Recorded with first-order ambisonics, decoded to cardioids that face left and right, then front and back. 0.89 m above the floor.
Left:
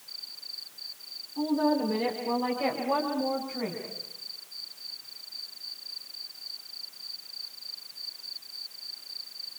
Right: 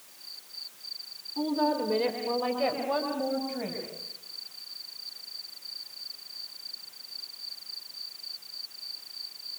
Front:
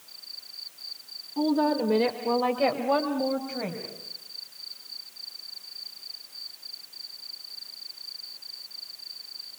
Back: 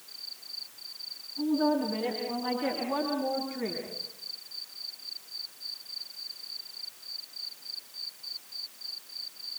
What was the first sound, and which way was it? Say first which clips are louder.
A woman speaking: left 1 dB, front 3 dB; 15° right.